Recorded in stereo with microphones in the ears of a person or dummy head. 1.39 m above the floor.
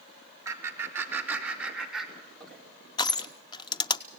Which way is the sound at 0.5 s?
20° right (ahead or behind).